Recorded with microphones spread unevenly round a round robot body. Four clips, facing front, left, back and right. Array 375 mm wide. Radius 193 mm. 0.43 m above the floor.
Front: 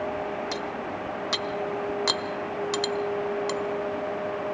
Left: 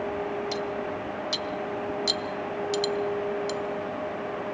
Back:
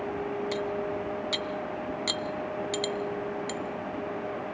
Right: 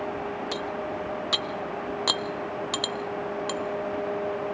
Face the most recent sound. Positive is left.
turn(degrees=-50)